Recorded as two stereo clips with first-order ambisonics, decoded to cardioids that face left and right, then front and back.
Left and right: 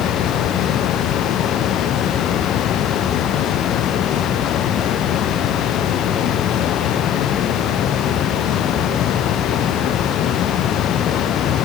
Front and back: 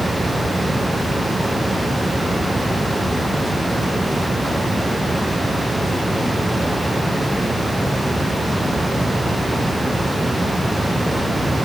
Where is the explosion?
No explosion in this recording.